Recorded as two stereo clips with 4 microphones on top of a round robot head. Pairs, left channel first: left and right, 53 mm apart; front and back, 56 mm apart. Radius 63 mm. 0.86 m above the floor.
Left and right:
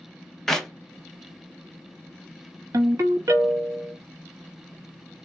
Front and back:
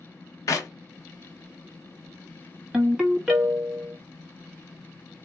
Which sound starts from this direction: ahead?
A clap, at 0.5 s.